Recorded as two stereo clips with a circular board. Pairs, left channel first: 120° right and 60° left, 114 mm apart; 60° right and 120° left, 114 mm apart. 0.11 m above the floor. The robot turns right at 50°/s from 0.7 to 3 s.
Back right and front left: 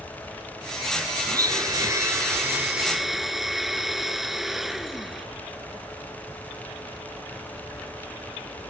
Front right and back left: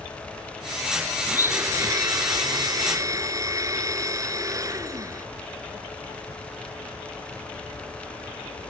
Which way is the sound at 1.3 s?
60° left.